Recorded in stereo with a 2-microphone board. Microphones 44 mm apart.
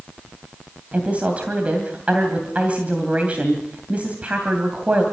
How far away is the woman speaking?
About 2.5 m.